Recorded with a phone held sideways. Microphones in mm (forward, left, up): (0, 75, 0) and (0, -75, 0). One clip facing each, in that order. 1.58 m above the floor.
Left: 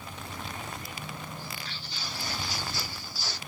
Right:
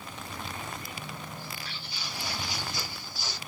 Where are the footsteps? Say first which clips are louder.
Even; 5° right (ahead or behind), 2 m; by 3.4 s 20° right (ahead or behind), 1.6 m.